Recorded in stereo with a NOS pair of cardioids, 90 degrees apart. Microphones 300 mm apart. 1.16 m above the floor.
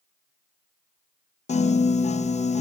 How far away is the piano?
About 0.8 m.